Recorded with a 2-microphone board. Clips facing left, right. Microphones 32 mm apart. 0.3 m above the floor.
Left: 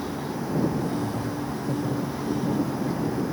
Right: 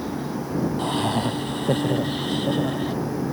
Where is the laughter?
80° right.